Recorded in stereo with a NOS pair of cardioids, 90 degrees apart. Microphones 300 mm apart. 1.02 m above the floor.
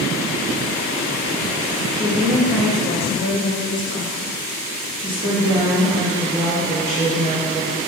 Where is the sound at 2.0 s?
10° right, 1.2 m; by 4.3 s 50° left, 1.7 m.